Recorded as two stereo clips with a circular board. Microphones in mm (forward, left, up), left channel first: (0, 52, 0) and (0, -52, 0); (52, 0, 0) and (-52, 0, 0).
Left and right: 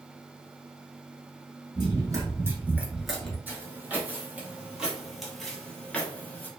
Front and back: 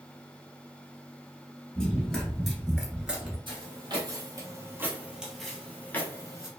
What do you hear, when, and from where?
1.8 s running footsteps: 80° right, 1.0 m; by 3.4 s 140° left, 0.8 m
3.5 s footsteps: 155° right, 1.3 m; by 6.5 s 30° left, 0.9 m